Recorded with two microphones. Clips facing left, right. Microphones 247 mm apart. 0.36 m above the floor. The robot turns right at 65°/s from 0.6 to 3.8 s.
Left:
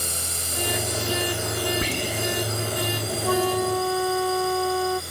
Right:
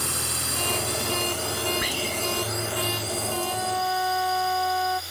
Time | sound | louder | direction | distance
0.0 | a drone | right 2 dB | 70° right (ahead or behind) | ?
1.8 | whispering | left 3 dB | 30° left (ahead or behind) | ?
3.2 | a flute | left 12 dB | 100° left | ?